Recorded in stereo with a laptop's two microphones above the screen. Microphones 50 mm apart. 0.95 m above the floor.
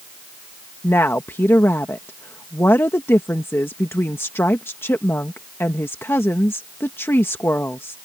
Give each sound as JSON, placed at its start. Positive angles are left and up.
{"t": 0.8, "sound": "a woman speaking", "side_deg": 55}